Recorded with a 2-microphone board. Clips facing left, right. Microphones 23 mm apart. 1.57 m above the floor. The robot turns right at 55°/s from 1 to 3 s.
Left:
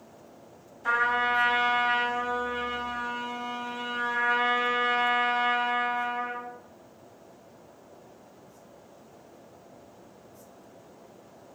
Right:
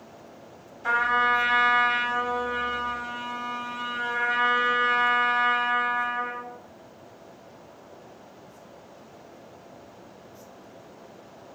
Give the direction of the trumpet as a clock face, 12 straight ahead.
4 o'clock.